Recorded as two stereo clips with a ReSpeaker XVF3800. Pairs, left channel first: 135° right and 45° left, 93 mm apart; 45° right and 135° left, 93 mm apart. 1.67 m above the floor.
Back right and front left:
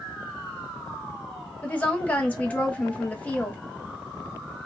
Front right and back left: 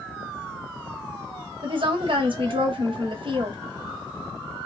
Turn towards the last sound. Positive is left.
turn(degrees=150)